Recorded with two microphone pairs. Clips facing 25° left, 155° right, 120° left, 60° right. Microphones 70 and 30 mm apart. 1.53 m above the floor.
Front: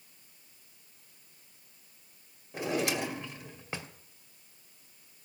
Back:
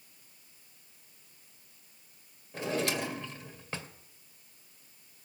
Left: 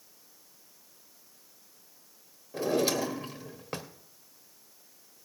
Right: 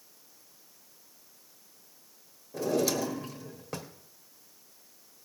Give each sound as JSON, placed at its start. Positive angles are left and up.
{"t": 2.5, "sound": "a drawer", "azimuth_deg": 95, "distance_m": 1.4}